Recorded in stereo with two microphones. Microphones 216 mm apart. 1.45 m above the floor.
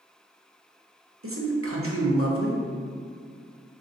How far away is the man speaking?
About 0.9 m.